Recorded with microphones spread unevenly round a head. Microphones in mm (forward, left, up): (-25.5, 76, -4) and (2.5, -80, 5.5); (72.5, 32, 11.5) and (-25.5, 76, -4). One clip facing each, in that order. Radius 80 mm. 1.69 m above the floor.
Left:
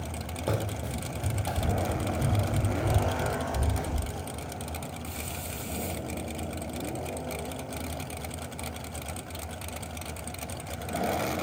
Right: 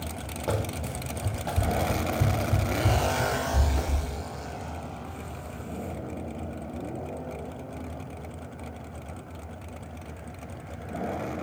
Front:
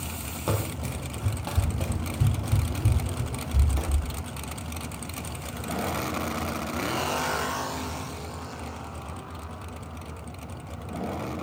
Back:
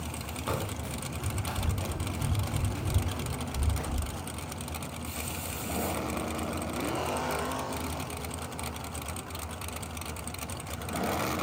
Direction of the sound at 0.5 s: 25° left.